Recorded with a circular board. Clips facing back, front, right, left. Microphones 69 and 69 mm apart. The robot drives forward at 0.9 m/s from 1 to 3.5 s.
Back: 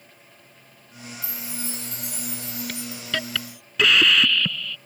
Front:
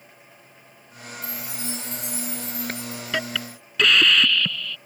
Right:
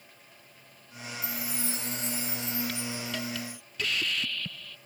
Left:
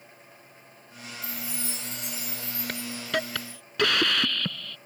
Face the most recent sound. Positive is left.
turn(degrees=95)